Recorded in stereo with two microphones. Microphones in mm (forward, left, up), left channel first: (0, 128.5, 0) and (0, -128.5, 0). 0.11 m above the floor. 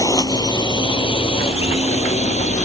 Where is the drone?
15° left (ahead or behind); by 2.7 s 30° left (ahead or behind).